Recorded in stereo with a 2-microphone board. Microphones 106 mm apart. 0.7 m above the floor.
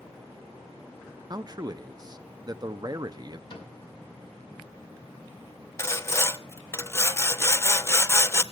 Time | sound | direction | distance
1.3 | a man speaking | 40° right (ahead or behind) | 0.8 m
3.5 | a cupboard door | 40° left (ahead or behind) | 6 m
5.8 | sawing | 25° left (ahead or behind) | 0.7 m